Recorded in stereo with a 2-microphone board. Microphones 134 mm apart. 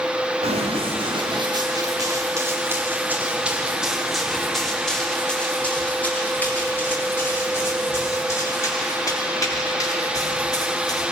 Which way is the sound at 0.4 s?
45° right (ahead or behind).